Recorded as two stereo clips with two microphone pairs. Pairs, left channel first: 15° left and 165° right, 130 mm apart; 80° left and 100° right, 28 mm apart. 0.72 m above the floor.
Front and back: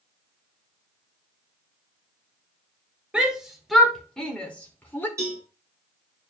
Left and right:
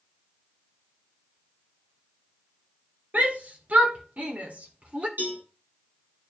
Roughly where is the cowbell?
Right.